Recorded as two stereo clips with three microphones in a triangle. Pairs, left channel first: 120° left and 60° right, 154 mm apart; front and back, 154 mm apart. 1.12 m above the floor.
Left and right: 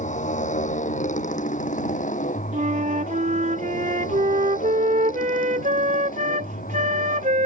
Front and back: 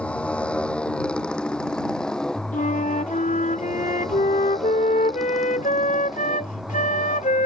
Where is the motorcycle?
85° left; by 7.5 s 95° left.